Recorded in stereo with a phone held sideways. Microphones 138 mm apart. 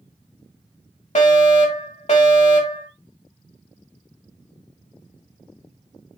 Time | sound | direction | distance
1.1 | a fire alarm | 55° left (ahead or behind) | 2.5 m